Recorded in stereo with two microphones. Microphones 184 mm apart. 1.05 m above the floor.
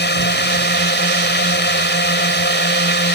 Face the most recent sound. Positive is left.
turn(degrees=65)  # may be behind; listen again after turning